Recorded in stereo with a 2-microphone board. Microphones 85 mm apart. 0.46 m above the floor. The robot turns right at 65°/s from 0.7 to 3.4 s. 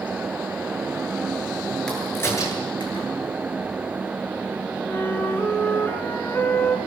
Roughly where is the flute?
Left.